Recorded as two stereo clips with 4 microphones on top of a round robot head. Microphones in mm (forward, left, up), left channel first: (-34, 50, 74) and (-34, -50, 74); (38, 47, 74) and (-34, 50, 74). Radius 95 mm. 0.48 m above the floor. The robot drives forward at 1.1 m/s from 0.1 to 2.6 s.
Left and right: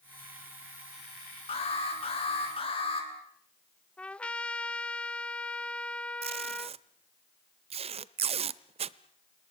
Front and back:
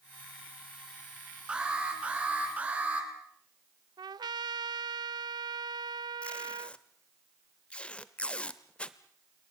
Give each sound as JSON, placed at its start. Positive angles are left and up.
{"t": 1.5, "sound": "an alarm", "azimuth_deg": 105, "distance_m": 8.5}
{"t": 4.0, "sound": "a trumpet", "azimuth_deg": 170, "distance_m": 0.6}
{"t": 6.2, "sound": "tape being pulled", "azimuth_deg": -80, "distance_m": 0.7}